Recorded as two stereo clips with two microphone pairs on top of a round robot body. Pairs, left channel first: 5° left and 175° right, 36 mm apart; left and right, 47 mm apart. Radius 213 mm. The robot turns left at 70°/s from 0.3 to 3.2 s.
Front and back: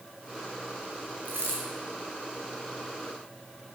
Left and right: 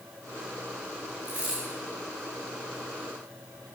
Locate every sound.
1.2 s a dropped coin: 140° right, 0.9 m; by 1.6 s 160° right, 0.9 m